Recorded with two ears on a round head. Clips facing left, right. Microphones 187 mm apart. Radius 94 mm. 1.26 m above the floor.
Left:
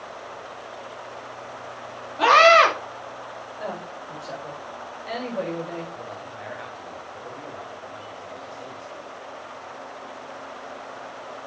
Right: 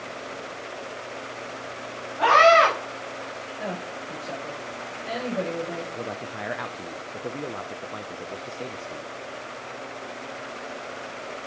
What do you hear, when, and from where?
2.2 s a scream: 45° left (ahead or behind), 2.5 m
3.6 s a woman speaking: 5° right (ahead or behind), 5 m
5.9 s a man speaking: 65° right (ahead or behind), 0.7 m